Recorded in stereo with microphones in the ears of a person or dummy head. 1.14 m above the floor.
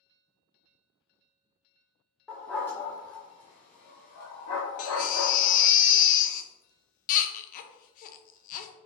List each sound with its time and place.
2.3 s a dog barking: 10° left (ahead or behind), 1.3 m; by 5.6 s 50° left (ahead or behind), 1.4 m
4.8 s a baby crying: 50° left (ahead or behind), 0.6 m